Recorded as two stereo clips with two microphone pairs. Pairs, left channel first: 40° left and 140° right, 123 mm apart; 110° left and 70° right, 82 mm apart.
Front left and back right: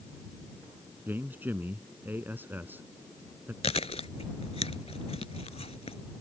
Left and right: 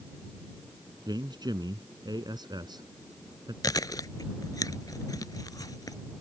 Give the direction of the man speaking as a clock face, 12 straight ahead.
2 o'clock.